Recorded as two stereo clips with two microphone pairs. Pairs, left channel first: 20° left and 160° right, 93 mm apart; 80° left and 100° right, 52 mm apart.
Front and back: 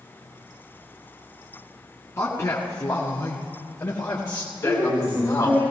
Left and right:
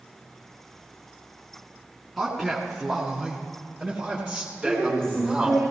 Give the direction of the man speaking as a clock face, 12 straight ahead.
12 o'clock.